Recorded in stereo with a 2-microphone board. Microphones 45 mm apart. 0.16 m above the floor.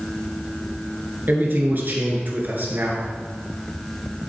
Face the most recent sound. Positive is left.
turn(degrees=-50)  # may be behind; listen again after turning